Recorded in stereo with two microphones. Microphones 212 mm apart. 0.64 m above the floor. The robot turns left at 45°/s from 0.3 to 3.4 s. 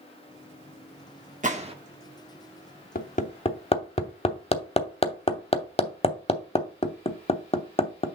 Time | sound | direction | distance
1.4 | a gunshot | 40° right (ahead or behind) | 1.0 m
3.0 | hammering | 50° left (ahead or behind) | 0.9 m